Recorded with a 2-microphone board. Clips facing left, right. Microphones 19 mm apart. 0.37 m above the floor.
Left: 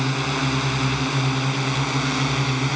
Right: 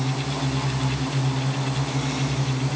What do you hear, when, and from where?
0.0 s a drone: 65° left (ahead or behind); by 2.8 s 60° left (ahead or behind)